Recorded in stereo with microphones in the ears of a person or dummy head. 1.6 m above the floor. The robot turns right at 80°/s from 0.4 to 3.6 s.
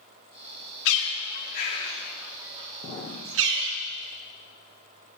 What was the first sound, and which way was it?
A bird, 80° left.